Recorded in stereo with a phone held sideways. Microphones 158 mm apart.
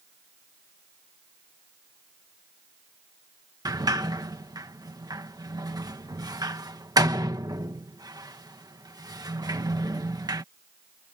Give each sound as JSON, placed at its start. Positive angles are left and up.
{"t": 3.6, "sound": "a sliding door", "side_deg": -25}